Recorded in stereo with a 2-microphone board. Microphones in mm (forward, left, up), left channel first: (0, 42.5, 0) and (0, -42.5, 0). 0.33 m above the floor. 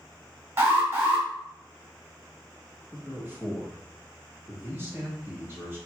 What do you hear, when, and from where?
0.6 s an alarm: 35° right (ahead or behind), 1.3 m
2.9 s a man speaking: 25° right (ahead or behind), 1.3 m